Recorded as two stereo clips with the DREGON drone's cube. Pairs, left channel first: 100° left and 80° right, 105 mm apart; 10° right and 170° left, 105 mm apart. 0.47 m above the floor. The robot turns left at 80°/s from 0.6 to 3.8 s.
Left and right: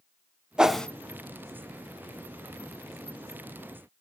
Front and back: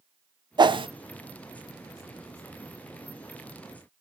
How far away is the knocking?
No knocking in this recording.